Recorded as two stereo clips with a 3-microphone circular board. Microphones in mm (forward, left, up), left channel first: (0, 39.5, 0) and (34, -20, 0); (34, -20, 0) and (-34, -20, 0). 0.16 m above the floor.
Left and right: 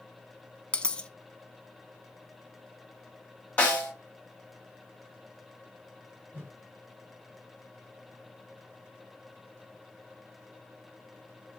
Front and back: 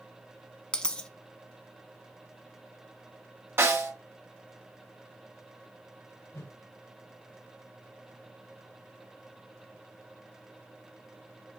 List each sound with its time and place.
0.7 s a dropped coin: 65° left, 0.6 m
3.6 s a snare drum: 175° left, 1.8 m
6.3 s a whoosh: 5° right, 2.5 m